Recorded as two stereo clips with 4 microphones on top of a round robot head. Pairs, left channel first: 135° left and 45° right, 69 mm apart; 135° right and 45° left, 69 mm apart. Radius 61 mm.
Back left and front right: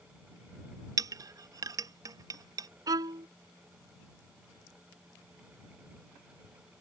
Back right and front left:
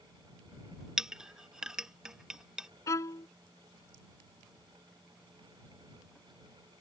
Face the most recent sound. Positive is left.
turn(degrees=-85)